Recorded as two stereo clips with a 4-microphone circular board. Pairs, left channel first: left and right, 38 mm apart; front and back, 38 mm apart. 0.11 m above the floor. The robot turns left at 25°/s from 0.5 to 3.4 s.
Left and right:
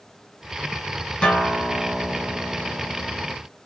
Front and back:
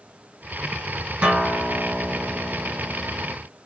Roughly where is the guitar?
Behind left.